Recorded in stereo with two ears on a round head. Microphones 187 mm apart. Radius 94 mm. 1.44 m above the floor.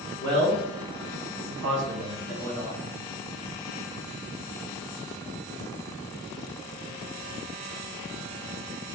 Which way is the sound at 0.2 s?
20° right (ahead or behind).